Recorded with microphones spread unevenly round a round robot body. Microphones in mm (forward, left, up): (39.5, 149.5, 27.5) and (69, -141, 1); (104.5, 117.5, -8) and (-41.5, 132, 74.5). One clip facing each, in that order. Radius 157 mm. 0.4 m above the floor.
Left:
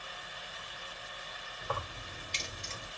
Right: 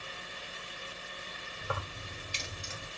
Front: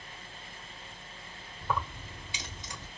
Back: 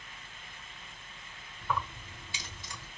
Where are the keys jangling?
10° right, 1.0 m.